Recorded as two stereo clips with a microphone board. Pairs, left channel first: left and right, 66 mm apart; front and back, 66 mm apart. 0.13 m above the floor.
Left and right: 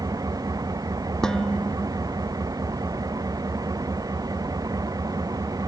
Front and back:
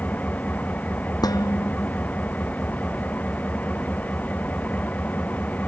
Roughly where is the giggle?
I don't hear a giggle.